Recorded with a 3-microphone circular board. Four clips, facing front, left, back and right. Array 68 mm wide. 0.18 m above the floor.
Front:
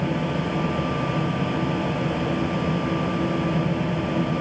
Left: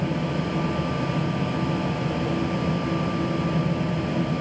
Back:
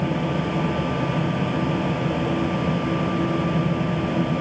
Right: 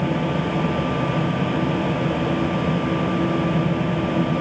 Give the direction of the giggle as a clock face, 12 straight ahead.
No giggle in this recording.